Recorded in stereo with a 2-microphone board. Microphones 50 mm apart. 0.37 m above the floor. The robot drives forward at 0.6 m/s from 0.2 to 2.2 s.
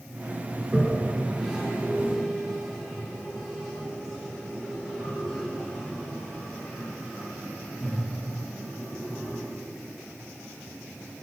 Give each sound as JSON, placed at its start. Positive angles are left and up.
{"t": 0.6, "sound": "a toilet flushing", "side_deg": -15, "distance_m": 0.7}